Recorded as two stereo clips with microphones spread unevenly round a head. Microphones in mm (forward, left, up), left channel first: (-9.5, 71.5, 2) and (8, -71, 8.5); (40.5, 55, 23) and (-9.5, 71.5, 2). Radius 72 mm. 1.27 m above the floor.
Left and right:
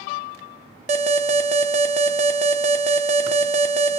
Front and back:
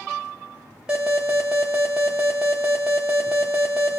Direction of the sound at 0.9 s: 130° right.